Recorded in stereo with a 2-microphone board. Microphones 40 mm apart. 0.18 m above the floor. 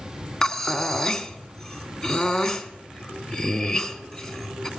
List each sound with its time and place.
0.4 s breathing: 15° left (ahead or behind), 0.9 m